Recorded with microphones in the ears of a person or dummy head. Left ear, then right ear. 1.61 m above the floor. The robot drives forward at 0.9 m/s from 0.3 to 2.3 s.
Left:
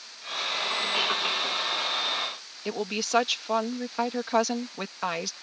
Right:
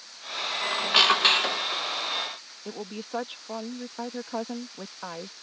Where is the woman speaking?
70° left (ahead or behind).